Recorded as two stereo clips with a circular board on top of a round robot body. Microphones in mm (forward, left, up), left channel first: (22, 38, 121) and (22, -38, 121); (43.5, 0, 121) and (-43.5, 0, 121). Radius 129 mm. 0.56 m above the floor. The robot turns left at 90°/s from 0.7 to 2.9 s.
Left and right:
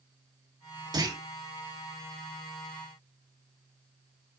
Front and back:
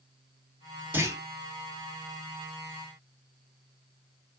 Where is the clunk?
115° right, 2 m; by 1.2 s 135° right, 2 m.